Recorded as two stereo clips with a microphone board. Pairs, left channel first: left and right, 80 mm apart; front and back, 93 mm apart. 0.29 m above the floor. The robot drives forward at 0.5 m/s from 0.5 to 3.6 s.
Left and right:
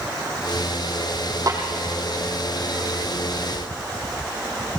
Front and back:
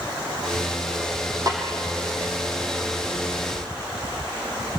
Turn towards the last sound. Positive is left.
turn(degrees=-140)